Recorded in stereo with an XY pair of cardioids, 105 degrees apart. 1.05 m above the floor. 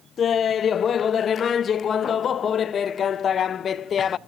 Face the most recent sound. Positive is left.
turn(degrees=50)